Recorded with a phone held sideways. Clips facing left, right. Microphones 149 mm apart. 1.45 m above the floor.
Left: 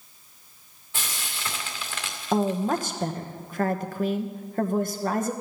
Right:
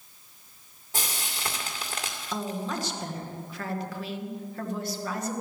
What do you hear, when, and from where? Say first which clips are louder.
0.9 s frying: right 1 dB; 40° right (ahead or behind), 2 m
2.3 s a woman speaking: left 9 dB; 50° left (ahead or behind), 1.1 m